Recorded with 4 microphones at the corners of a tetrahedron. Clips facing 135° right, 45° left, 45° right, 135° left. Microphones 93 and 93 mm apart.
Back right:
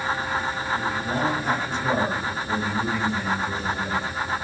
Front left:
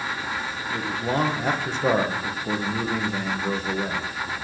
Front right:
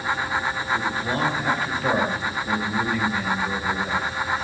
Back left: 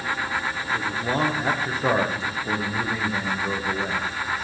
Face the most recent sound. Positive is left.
turn(degrees=70)